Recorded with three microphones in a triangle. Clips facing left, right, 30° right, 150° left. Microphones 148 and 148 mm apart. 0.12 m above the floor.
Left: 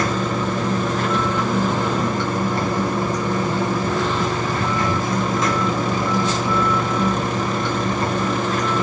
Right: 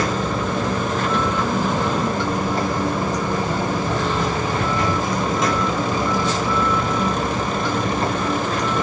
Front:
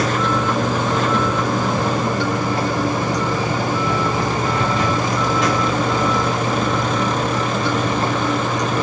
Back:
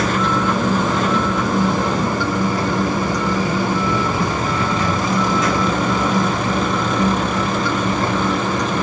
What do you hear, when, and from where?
0.0 s running water: 20° right, 2.5 m